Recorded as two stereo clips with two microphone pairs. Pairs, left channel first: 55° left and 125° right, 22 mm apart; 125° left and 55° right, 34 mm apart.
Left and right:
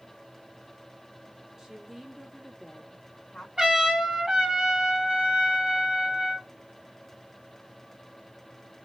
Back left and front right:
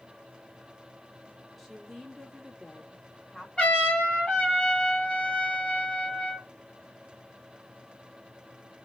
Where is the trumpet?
175° left, 1.8 m.